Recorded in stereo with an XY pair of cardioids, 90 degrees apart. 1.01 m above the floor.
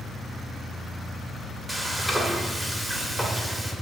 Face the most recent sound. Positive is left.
turn(degrees=5)